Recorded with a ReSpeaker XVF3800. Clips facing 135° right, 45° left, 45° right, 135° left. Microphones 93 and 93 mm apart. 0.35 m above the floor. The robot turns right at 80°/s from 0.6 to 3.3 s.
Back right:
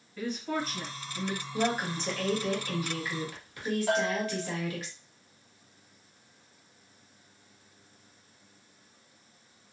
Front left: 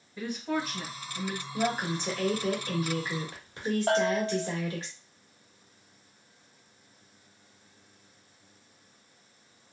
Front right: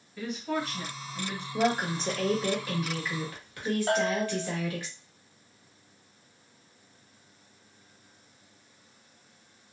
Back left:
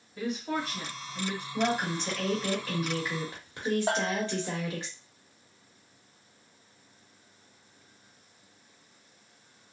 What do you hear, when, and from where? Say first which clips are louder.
0.2 s a woman speaking: front left 1 dB, even; 105° left, 1.5 m; by 1.4 s 170° left, 1.5 m
1.5 s a woman speaking: even, front right 2 dB; 60° right, 1.2 m; by 4.9 s 85° left, 1.2 m
3.9 s a bell: front left 4 dB, front right 2 dB; 70° left, 1.1 m